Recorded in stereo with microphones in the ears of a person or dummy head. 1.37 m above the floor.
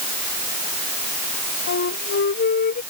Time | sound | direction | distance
1.7 | a flute | 55° left (ahead or behind) | ?